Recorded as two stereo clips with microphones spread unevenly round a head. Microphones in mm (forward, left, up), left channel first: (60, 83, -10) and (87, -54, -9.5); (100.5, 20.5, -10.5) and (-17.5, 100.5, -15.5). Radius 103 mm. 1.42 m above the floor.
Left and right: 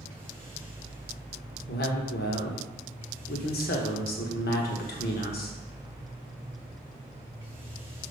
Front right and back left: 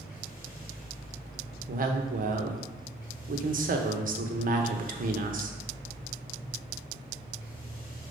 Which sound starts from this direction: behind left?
A woman speaking, at 1.7 s.